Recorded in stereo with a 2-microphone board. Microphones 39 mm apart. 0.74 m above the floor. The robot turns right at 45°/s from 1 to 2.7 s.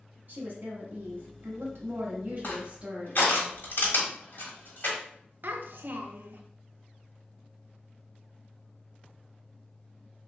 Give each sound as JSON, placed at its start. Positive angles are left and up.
{"t": 0.3, "sound": "a woman speaking", "azimuth_deg": -120, "distance_m": 1.1}
{"t": 2.4, "sound": "crushing", "side_deg": 55, "distance_m": 1.3}
{"t": 5.4, "sound": "a child speaking", "side_deg": -60, "distance_m": 0.5}